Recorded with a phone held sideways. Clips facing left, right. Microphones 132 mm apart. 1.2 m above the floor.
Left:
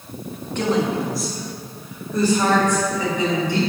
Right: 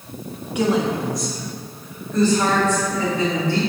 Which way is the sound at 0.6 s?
10° right (ahead or behind).